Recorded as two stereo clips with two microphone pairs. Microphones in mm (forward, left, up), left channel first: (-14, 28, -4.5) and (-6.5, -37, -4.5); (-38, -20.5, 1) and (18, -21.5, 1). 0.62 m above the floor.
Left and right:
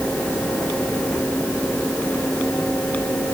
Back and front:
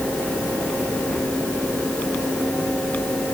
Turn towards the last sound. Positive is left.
No sound to turn to.